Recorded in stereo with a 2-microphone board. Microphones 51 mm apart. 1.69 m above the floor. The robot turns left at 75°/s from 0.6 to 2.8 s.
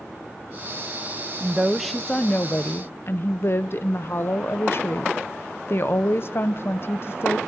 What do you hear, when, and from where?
1.4 s a woman speaking: 145° right, 0.8 m; by 7.4 s 110° left, 0.8 m